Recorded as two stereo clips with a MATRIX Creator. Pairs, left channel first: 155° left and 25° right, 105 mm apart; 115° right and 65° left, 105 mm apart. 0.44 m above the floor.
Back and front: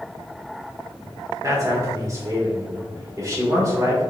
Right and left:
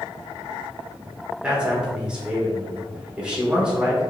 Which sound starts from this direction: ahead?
A man speaking, at 1.4 s.